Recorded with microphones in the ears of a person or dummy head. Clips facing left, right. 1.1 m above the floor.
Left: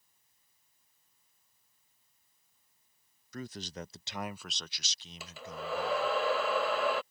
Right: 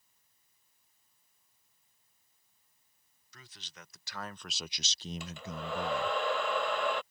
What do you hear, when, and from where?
3.3 s a man speaking: 45° left (ahead or behind); by 6.2 s 75° right (ahead or behind)
5.2 s a hair dryer: 10° left (ahead or behind)